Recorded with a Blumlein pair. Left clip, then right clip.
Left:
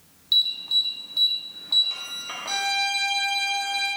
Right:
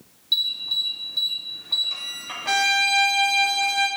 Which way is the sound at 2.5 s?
55° right.